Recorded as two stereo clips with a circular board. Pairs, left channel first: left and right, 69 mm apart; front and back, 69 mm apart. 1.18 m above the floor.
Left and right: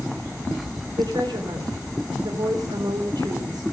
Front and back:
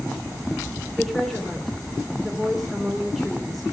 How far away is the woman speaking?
About 3 m.